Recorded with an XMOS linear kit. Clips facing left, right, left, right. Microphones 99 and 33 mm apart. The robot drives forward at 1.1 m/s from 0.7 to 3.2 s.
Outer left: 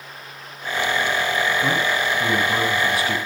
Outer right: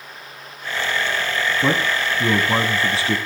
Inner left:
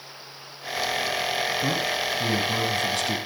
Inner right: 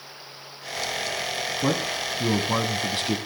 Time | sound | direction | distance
1.6 | a man speaking | 35° right (ahead or behind) | 1.4 m